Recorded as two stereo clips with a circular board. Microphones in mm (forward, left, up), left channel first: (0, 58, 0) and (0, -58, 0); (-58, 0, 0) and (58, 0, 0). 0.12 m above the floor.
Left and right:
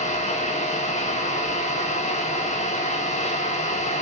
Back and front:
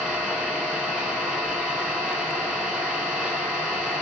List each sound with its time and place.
0.0 s an engine running: 80° left, 4 m